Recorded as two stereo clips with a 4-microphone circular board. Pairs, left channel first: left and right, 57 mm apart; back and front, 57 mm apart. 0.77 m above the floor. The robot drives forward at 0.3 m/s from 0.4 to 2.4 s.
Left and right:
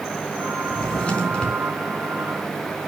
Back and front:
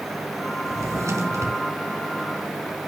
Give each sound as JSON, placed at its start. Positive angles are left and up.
{"t": 0.7, "sound": "a drawer", "azimuth_deg": 20, "distance_m": 4.0}